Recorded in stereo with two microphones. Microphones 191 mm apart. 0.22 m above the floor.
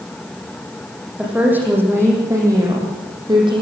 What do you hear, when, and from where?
1.2 s a woman speaking: 5° right (ahead or behind), 8.5 m; by 3.6 s 25° right (ahead or behind), 9 m